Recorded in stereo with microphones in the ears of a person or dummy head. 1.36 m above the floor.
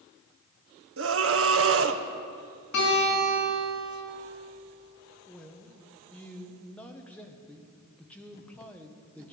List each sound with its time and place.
1.0 s a scream: 70° right (ahead or behind), 1.1 m
2.7 s a guitar: 55° left (ahead or behind), 6.5 m
5.3 s a man speaking: 5° left (ahead or behind), 1.2 m